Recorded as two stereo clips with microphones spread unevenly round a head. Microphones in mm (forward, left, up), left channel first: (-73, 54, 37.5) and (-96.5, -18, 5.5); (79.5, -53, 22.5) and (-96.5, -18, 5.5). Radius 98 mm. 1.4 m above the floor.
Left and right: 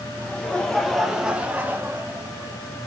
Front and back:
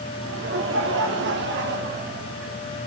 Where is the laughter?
150° left, 2 m; by 2.6 s 145° right, 2.0 m.